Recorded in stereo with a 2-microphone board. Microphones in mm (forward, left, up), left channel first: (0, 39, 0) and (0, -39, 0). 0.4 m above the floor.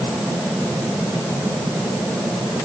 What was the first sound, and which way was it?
Only background noise.